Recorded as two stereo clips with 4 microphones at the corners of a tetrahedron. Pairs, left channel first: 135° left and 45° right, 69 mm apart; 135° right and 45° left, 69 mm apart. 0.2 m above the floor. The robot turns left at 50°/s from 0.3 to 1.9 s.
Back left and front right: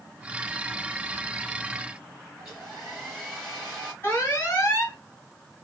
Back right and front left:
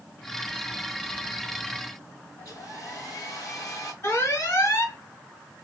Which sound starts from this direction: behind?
An alarm, at 4.0 s.